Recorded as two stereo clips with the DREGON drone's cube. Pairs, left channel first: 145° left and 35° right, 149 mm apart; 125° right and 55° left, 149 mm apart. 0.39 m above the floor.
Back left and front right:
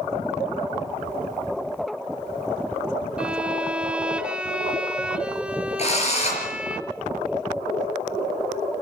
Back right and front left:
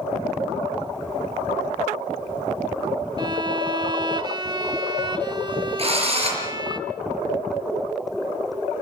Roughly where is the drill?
Left.